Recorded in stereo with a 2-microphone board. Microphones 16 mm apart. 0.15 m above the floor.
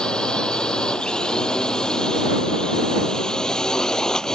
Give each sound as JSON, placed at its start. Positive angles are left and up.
{"t": 0.0, "sound": "a drone", "side_deg": 65}